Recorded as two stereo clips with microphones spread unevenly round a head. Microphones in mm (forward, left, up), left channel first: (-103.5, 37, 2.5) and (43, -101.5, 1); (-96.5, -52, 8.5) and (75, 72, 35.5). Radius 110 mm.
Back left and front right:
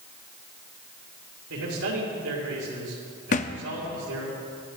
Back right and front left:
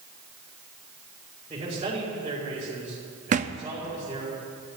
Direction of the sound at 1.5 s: 35° right.